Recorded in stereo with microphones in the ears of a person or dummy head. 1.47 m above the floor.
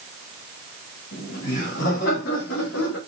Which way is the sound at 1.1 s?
55° left (ahead or behind).